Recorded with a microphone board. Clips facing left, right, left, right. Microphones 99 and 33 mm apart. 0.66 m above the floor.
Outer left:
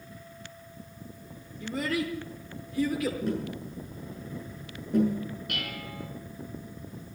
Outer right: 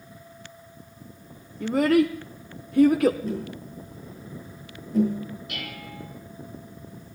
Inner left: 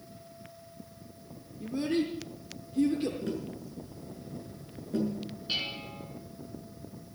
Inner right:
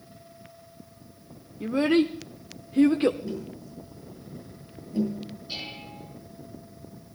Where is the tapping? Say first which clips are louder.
Even, even; 75° left (ahead or behind), 7.5 m.